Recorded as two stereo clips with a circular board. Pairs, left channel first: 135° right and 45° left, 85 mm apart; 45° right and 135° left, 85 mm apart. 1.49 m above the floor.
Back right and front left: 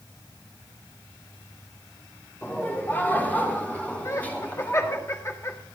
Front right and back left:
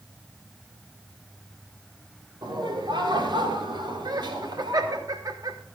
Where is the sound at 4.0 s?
170° left, 1.0 m.